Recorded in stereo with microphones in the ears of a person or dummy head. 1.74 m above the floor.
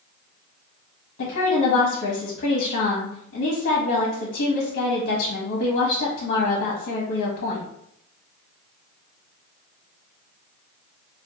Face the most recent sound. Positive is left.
turn(degrees=60)  # may be behind; listen again after turning